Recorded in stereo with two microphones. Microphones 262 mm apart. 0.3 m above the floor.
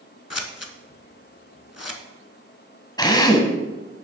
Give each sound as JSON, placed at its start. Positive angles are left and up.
{"t": 0.3, "sound": "scissors", "side_deg": 75, "distance_m": 0.8}
{"t": 3.0, "sound": "a drill", "side_deg": 15, "distance_m": 1.0}